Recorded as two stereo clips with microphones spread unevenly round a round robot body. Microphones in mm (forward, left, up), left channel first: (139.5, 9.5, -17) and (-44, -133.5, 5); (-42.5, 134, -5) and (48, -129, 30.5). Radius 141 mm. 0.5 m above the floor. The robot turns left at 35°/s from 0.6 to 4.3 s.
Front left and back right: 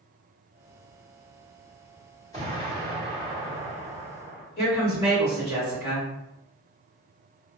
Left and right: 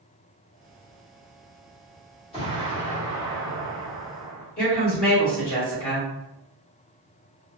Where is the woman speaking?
85° left, 1.4 m.